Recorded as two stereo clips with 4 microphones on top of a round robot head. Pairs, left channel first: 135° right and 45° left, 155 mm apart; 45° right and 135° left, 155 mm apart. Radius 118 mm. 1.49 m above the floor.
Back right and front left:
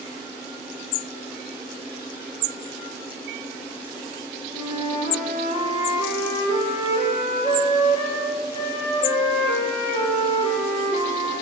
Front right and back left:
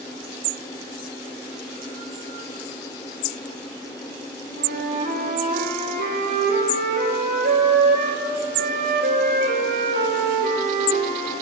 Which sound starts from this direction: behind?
A flute, at 4.5 s.